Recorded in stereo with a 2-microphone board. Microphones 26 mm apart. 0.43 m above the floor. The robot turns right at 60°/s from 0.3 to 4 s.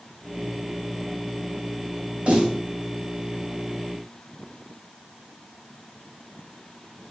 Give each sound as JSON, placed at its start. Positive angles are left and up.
{"t": 2.3, "sound": "a snare drum", "side_deg": -45, "distance_m": 1.2}